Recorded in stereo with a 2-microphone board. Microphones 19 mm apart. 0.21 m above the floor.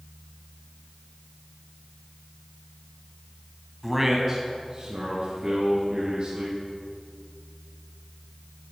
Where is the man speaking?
10° right (ahead or behind), 1.2 m; by 6.6 s 55° right (ahead or behind), 4.5 m.